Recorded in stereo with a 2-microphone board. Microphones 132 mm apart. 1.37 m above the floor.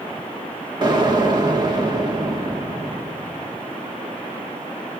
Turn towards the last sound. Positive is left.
turn(degrees=-35)  # may be behind; listen again after turning